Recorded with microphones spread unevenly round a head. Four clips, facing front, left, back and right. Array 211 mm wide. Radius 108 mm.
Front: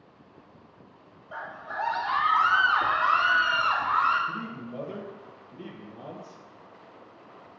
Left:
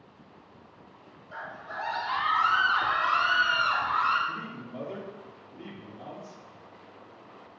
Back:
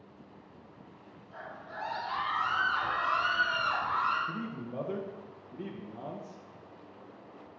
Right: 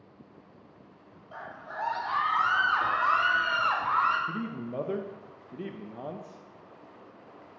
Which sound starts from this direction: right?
A man speaking, at 4.3 s.